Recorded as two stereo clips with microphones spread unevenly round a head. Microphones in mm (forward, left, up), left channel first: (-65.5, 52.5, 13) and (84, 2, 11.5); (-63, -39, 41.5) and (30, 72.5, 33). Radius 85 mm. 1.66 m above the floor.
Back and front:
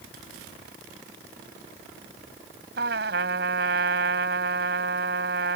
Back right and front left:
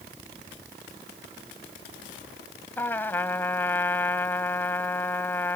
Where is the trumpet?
50° right.